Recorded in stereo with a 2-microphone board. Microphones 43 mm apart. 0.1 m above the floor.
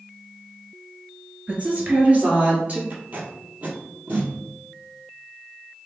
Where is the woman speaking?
35° right (ahead or behind), 1.7 m.